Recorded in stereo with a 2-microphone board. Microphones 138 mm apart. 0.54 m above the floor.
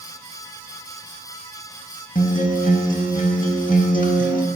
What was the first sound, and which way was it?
A guitar, 80° left.